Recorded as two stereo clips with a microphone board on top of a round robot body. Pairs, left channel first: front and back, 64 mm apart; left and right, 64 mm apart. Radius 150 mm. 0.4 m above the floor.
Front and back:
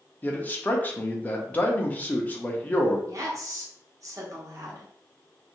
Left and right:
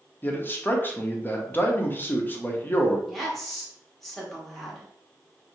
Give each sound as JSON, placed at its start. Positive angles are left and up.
{"t": 0.2, "sound": "a man speaking", "azimuth_deg": 50, "distance_m": 1.0}
{"t": 3.1, "sound": "a woman speaking", "azimuth_deg": 180, "distance_m": 1.6}